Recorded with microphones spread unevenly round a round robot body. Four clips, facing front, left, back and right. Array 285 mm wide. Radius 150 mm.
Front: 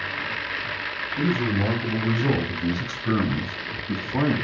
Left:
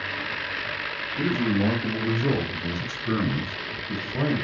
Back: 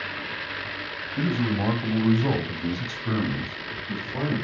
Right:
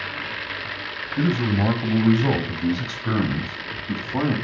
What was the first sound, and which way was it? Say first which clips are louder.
A man speaking: right 2 dB, front 1 dB; 110° right.